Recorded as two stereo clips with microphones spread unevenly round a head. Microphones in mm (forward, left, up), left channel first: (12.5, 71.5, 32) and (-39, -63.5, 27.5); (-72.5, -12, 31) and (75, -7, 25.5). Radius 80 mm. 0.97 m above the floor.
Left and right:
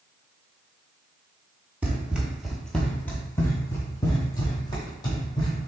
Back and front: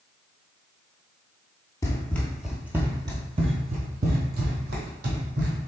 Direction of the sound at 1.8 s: Straight behind.